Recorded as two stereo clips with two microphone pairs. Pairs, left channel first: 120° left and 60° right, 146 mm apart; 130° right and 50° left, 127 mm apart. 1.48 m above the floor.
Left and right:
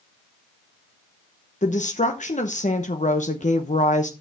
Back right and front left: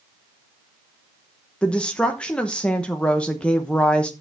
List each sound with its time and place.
1.6 s a woman speaking: 145° left, 0.9 m